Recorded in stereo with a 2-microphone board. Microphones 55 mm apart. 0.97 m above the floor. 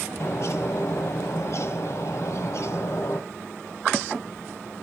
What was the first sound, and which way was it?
A bird, 60° left (ahead or behind).